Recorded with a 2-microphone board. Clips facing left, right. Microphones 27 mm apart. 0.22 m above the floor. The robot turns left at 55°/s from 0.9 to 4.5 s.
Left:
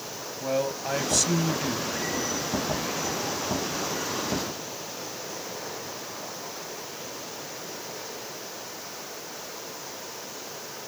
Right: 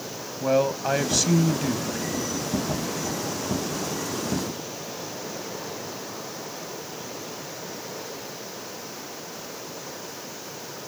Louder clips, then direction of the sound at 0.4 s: Right 6 dB; 20° right (ahead or behind).